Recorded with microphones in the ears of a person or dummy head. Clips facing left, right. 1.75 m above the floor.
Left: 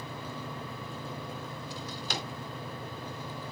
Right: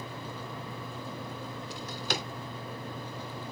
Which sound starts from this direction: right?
A drawer, at 1.7 s.